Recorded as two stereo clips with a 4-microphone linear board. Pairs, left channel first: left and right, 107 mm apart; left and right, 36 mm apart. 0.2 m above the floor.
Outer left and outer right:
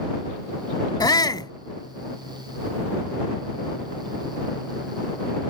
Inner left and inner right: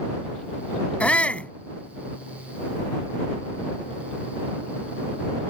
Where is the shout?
40° left (ahead or behind).